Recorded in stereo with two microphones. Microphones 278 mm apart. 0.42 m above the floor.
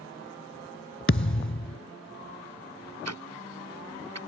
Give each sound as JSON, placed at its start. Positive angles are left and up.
{"t": 1.1, "sound": "a thud", "side_deg": 45}
{"t": 3.0, "sound": "ticking", "side_deg": -70}